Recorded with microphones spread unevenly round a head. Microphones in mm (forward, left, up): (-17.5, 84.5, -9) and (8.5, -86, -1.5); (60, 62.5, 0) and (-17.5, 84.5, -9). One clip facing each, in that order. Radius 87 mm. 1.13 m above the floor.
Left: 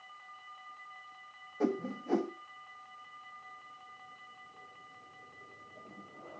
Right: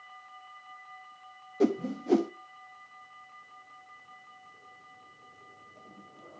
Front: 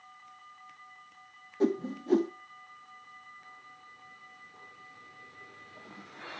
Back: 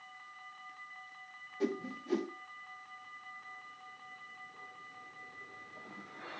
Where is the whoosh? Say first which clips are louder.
Right 6 dB, front 7 dB; 60° right, 0.6 m.